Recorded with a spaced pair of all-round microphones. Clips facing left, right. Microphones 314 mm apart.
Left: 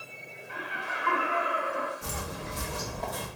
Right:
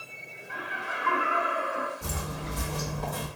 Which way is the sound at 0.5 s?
50° right (ahead or behind).